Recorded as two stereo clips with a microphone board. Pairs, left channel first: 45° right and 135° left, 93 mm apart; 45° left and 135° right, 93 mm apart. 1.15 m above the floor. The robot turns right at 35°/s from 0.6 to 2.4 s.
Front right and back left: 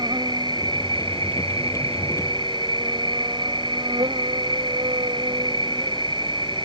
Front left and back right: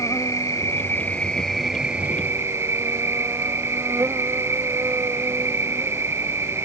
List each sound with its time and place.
0.0 s an insect: 100° left; by 6.7 s 165° left